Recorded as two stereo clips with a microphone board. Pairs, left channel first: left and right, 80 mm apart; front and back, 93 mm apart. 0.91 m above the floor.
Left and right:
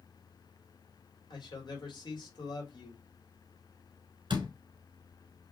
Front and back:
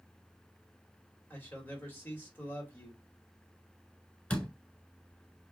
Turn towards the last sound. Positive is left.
turn(degrees=-75)